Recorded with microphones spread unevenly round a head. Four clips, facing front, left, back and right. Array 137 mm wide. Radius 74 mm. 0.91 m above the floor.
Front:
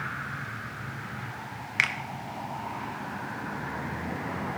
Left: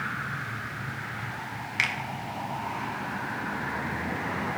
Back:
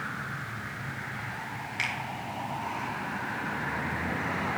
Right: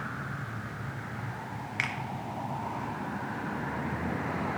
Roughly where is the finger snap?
Ahead.